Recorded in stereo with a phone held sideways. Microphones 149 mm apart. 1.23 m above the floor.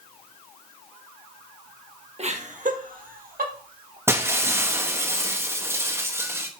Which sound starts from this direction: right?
Laughter, at 2.2 s.